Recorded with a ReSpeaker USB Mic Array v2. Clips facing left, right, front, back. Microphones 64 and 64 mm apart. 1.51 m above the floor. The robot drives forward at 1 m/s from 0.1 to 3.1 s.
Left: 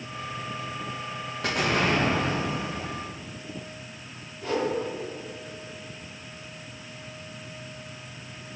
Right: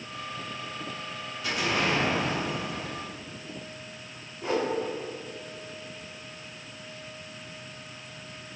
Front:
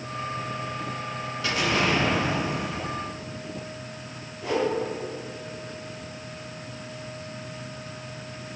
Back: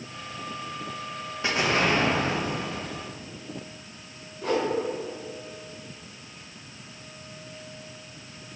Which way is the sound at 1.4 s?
115° left.